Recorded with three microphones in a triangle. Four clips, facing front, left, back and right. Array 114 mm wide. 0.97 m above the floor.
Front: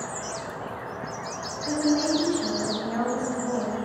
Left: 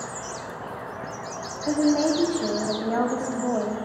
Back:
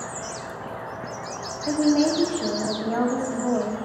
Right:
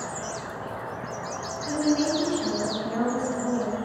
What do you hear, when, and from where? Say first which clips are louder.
1.7 s a woman speaking: left 3 dB, back 4 dB; 130° left, 1.6 m